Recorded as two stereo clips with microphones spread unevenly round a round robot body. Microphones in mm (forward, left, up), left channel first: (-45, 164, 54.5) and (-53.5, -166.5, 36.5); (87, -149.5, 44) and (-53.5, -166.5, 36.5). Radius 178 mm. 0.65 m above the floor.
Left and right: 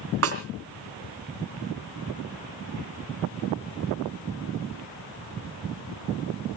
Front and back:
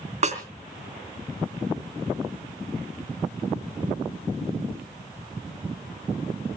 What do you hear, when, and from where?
0.2 s a snare drum: 140° right, 3.5 m